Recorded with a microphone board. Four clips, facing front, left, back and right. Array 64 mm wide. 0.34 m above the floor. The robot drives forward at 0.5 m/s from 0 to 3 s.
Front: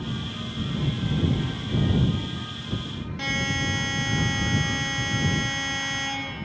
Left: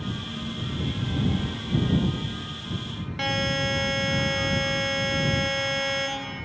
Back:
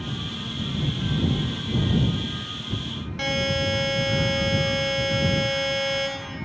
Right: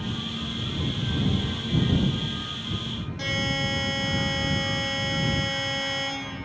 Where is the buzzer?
110° left, 0.5 m.